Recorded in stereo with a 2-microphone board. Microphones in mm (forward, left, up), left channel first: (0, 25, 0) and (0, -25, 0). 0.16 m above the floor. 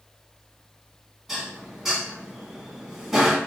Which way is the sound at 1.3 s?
5° right (ahead or behind).